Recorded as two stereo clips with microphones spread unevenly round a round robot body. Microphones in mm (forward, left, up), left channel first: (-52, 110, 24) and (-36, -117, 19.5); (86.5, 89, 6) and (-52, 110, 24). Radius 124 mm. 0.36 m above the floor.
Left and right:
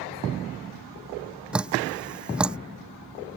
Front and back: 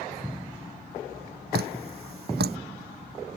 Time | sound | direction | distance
1.5 | dripping | 170° right | ?